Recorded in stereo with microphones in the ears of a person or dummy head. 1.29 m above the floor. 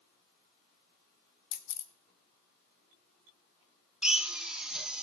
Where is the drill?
5° right (ahead or behind), 0.6 m.